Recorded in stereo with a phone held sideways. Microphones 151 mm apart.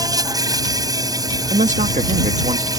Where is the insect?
25° right (ahead or behind).